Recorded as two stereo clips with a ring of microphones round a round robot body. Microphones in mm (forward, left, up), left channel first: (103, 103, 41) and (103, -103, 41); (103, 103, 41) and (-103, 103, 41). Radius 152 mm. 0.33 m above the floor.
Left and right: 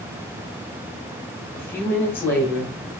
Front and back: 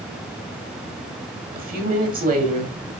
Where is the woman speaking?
165° left, 1.4 m.